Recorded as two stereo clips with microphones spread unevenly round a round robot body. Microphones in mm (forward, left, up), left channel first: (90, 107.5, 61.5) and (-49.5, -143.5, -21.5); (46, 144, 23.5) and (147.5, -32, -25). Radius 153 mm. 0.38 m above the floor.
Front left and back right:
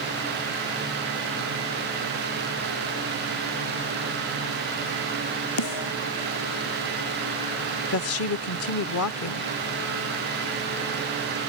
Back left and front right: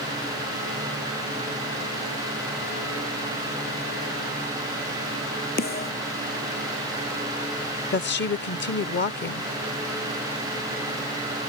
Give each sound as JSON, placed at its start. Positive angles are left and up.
{"t": 5.6, "sound": "a snare drum", "azimuth_deg": 80}
{"t": 7.9, "sound": "a woman speaking", "azimuth_deg": 100}